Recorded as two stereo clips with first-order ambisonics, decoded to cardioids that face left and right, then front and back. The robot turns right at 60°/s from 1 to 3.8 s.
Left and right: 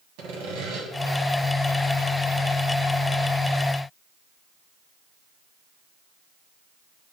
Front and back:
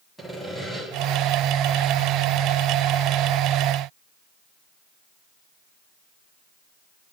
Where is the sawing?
80° right, 1.7 m.